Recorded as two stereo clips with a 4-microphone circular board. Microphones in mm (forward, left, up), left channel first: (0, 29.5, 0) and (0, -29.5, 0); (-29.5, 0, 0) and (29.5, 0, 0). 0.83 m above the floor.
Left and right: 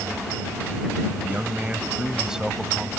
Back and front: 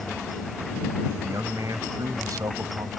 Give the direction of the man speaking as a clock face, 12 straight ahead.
1 o'clock.